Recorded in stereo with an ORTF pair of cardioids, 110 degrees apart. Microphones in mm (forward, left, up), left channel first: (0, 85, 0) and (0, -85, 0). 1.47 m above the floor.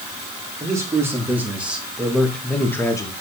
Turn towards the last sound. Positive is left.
turn(degrees=20)